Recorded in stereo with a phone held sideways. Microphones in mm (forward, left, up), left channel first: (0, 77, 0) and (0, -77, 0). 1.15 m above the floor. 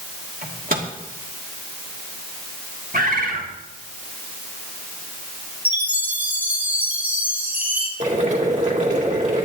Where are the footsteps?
I don't hear footsteps.